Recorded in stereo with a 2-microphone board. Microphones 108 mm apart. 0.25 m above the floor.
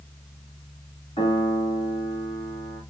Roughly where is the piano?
Left.